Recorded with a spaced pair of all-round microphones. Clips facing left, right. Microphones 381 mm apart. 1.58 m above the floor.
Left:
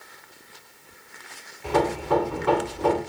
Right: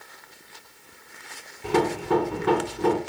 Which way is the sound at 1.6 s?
30° right (ahead or behind).